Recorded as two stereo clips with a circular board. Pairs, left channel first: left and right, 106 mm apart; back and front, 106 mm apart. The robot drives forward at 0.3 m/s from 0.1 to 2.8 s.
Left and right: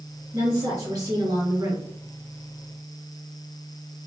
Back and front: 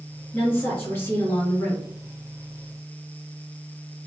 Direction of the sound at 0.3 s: 115° right.